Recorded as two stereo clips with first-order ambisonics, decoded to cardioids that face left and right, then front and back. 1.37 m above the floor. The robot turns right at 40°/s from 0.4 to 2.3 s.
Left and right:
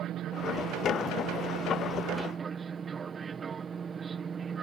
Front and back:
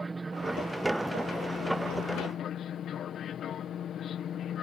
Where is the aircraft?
110° right; by 4.6 s 30° right.